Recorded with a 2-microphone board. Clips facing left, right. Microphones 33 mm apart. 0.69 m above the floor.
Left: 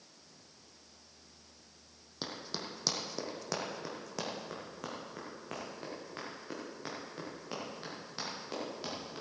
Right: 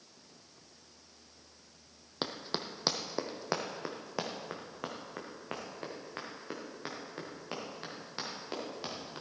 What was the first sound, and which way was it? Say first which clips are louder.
Running footsteps: right 4 dB; 40° right (ahead or behind).